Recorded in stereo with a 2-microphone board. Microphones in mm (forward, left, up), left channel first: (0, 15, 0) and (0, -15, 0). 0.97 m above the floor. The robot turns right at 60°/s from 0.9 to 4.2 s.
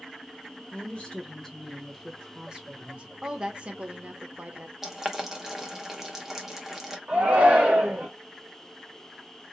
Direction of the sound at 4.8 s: 15° right (ahead or behind).